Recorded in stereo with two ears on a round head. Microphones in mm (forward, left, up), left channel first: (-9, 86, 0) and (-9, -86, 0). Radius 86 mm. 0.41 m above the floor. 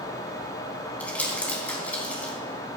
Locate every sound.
1.0 s crumpling: 10° left (ahead or behind), 3.5 m